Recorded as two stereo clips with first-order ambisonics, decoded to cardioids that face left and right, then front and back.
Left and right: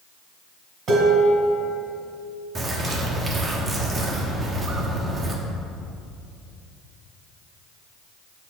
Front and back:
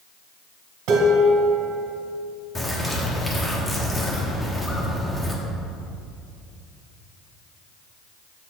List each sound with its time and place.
0.9 s dishes clattering: 150° right, 2 m
2.5 s a bird: 65° right, 0.8 m